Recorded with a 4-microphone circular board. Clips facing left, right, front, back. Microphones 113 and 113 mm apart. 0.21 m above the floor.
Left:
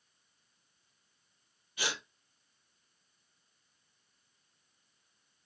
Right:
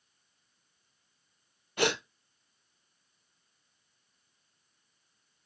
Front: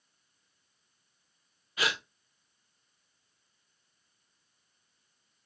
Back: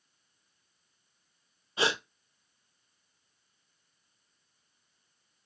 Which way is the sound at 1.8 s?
120° right.